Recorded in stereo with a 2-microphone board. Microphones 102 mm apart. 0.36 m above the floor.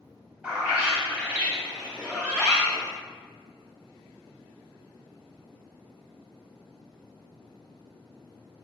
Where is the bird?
15° right (ahead or behind), 0.9 m.